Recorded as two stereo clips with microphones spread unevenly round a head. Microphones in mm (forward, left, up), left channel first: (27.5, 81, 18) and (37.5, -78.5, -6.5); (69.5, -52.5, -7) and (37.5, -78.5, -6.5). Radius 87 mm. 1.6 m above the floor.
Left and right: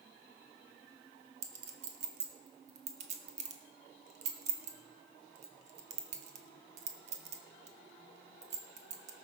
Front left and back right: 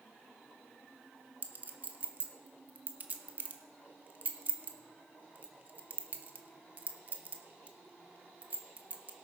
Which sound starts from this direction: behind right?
A clink, at 1.4 s.